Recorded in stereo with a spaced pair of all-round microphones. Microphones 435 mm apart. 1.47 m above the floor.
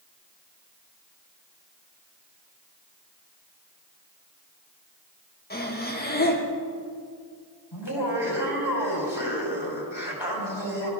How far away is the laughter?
About 5 m.